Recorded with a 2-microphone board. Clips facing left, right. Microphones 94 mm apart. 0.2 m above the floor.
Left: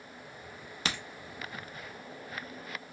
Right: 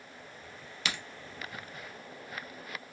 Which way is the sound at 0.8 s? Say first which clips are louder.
Left 1 dB; 40° left (ahead or behind).